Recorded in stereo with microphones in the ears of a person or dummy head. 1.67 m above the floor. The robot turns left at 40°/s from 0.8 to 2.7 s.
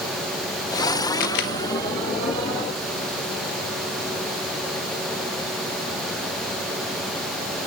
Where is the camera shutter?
55° left (ahead or behind), 0.8 m; by 1.5 s 60° left (ahead or behind), 0.8 m.